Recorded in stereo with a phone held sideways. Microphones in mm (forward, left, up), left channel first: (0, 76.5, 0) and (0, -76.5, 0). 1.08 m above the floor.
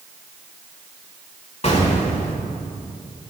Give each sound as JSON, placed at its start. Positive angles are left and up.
{"t": 1.6, "sound": "an explosion", "side_deg": 40, "distance_m": 1.2}